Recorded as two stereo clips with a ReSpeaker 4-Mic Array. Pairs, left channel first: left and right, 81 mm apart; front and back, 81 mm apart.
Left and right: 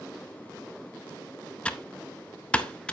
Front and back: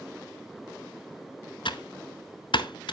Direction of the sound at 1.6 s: 15° left.